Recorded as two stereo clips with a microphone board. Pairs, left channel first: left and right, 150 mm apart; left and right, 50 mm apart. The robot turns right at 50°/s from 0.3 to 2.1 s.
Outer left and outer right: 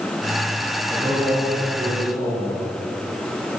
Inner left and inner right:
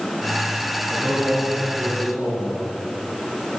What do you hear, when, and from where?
0.9 s a man speaking: 20° right, 4 m; by 2.7 s 40° left, 4 m